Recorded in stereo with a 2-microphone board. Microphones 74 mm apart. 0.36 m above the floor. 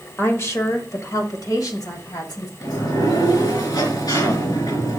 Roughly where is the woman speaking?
Left.